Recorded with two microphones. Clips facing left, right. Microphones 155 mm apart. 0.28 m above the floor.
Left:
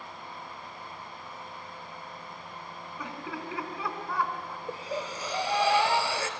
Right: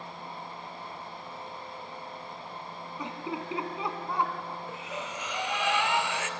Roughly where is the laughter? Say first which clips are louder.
Right 3 dB; right.